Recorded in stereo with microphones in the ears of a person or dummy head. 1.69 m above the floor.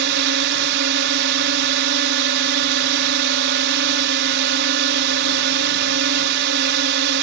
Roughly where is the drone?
Right.